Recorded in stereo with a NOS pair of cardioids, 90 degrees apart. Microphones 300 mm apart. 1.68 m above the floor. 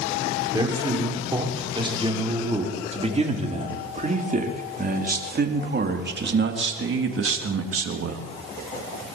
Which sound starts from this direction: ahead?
A man speaking, at 0.5 s.